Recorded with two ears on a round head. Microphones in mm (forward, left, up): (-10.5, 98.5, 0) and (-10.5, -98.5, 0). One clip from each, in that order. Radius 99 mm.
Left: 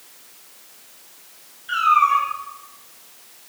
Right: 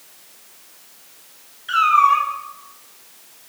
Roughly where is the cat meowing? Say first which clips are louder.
Right 2 dB; right.